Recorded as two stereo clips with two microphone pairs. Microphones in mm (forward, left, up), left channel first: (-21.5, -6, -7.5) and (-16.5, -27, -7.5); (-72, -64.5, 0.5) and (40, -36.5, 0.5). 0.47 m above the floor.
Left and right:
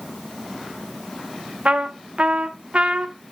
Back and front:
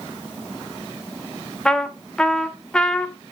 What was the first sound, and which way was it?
A trumpet, 85° right.